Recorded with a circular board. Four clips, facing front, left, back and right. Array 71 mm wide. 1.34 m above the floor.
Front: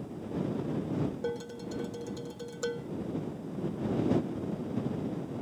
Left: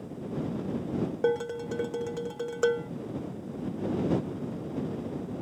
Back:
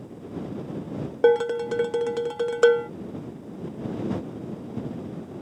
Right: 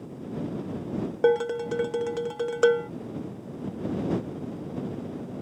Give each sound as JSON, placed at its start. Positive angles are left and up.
{"t": 1.2, "sound": "dishes clattering", "azimuth_deg": -160}